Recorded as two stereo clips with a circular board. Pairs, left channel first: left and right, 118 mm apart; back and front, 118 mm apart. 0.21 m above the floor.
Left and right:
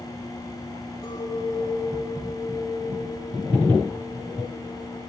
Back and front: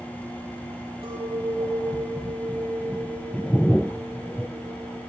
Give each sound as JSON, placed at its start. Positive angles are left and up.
{"t": 1.0, "sound": "a clink", "azimuth_deg": 35, "distance_m": 5.5}